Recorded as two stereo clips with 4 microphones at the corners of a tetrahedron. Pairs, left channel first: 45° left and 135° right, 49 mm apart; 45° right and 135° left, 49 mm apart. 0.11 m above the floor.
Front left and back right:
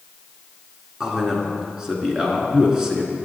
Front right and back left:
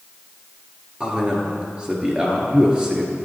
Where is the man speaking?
165° left, 1.2 m.